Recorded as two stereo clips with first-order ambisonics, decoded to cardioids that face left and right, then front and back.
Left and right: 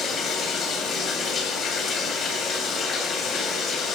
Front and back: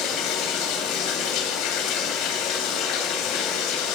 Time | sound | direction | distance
0.0 | running water | 30° left | 2.5 m